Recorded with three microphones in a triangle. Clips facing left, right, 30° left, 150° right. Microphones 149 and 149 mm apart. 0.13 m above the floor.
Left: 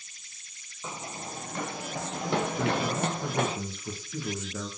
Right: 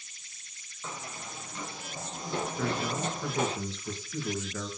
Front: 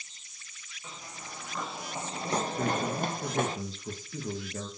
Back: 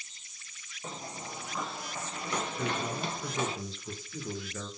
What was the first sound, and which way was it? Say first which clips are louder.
Running footsteps: left 3 dB, back 5 dB; 165° left.